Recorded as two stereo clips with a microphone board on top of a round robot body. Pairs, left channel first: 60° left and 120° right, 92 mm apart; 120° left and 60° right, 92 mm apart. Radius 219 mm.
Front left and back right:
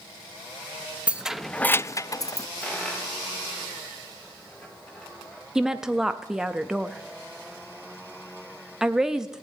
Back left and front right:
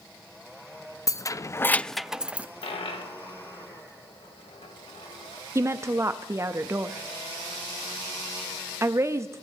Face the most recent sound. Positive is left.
turn(degrees=-40)